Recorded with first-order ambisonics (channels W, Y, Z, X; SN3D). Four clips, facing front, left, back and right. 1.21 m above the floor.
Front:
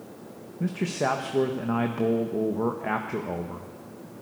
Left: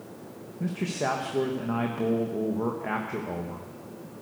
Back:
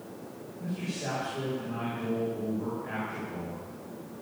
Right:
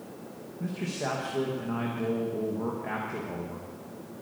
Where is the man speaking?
20° left, 1.3 m.